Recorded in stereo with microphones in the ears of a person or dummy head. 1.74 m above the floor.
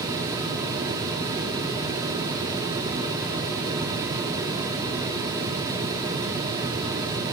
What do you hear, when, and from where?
Only background noise.